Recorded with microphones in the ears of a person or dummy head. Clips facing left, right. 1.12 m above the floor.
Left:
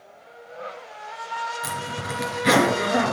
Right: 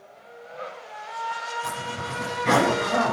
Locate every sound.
1.6 s a zipper: 75° left (ahead or behind), 3.5 m